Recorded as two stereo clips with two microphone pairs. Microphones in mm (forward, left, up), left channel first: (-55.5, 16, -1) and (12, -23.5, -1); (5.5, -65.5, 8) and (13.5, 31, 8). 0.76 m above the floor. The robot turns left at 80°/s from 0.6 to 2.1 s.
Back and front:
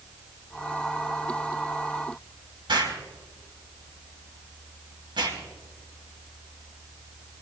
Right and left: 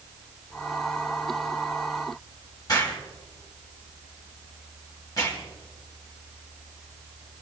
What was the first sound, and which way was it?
An explosion, 45° right.